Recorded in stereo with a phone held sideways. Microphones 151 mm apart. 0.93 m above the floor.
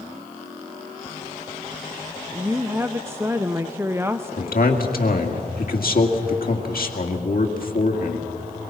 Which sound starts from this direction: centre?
A woman speaking, at 2.3 s.